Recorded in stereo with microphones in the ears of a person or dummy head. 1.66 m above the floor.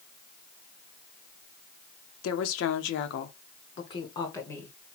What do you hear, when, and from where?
2.2 s a woman speaking: 85° left, 0.9 m; by 4.8 s 5° left (ahead or behind), 1.1 m